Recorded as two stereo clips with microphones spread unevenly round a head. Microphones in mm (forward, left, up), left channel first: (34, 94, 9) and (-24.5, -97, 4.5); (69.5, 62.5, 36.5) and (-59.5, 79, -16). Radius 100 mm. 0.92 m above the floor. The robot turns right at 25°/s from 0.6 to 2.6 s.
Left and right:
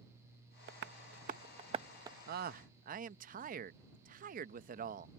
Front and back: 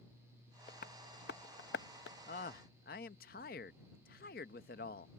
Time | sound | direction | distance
0.7 | tapping | 70° right | ?
2.3 | a man speaking | 65° right | ?